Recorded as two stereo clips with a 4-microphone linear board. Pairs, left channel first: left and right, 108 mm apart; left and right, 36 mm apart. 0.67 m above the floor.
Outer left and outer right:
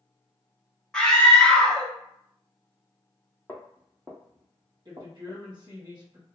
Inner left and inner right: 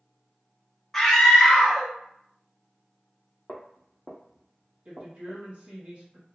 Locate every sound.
0.9 s a scream: 5° left (ahead or behind), 0.7 m
3.5 s footsteps: 10° left (ahead or behind), 1.0 m; by 5.4 s 50° right (ahead or behind), 1.6 m
4.8 s a woman speaking: 40° right (ahead or behind), 1.2 m